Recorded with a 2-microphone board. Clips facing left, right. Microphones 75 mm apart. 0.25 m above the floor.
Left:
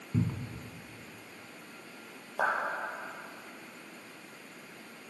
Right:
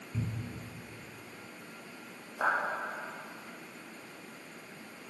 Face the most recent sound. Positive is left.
turn(degrees=65)  # may be behind; listen again after turning